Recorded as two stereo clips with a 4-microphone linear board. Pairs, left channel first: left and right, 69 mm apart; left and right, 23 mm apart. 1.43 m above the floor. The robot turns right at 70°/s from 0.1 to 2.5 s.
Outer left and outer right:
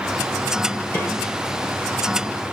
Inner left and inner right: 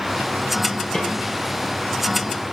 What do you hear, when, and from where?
0.9 s a snare drum: 35° left (ahead or behind), 5 m; by 1.1 s 25° left (ahead or behind), 5 m